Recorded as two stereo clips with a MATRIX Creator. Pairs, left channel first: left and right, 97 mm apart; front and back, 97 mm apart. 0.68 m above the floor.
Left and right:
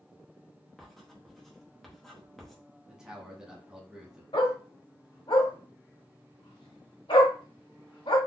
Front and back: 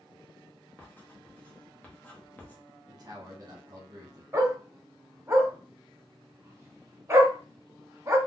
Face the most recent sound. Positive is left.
turn(degrees=120)